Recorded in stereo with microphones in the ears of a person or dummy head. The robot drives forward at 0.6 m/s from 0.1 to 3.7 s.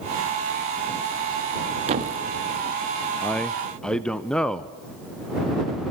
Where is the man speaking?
5° left (ahead or behind), 0.5 m.